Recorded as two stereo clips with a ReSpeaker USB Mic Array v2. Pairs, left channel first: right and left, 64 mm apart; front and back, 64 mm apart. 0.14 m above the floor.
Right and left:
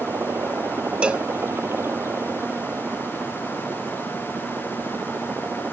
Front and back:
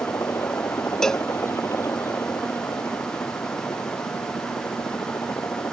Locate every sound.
0.0 s a helicopter: 40° left
1.0 s a cowbell: 65° left